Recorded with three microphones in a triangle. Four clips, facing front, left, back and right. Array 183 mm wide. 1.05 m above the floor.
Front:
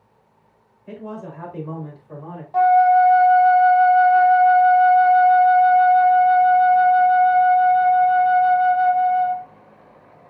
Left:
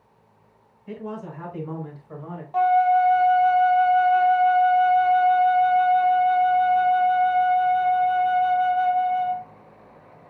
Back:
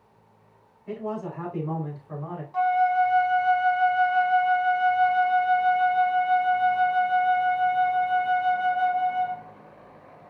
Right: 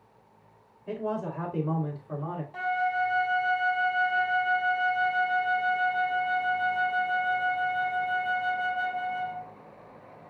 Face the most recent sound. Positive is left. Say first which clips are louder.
# left 11 dB, front 8 dB
turn(degrees=20)